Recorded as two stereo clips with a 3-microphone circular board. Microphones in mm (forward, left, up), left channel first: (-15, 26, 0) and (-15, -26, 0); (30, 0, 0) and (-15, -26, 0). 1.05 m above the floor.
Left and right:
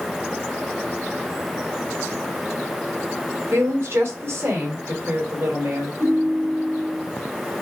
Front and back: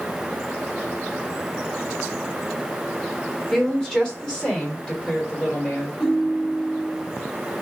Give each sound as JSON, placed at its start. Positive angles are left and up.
{"t": 3.5, "sound": "a woman speaking", "azimuth_deg": -50, "distance_m": 3.5}
{"t": 6.0, "sound": "a ringtone", "azimuth_deg": -60, "distance_m": 2.5}